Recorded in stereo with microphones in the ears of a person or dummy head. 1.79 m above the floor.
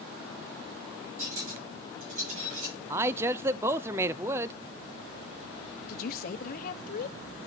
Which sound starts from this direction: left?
A woman speaking, at 5.9 s.